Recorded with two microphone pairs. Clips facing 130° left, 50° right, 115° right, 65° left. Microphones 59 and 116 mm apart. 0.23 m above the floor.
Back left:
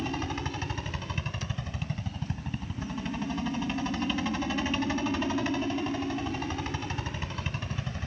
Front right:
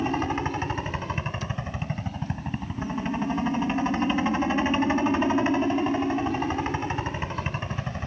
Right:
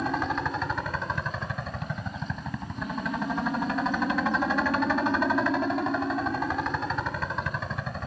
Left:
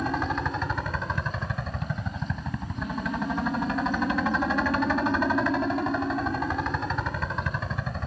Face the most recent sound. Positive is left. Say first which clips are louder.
# front right 7 dB, even
turn(degrees=-25)